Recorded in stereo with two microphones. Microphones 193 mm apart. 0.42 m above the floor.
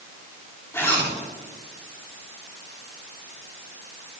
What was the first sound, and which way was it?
A zipper, 10° left (ahead or behind).